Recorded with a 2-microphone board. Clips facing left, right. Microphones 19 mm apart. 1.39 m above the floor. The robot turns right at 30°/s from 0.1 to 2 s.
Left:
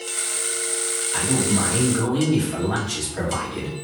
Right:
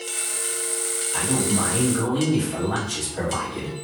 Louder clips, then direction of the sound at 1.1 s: Left 1 dB; 60° left (ahead or behind).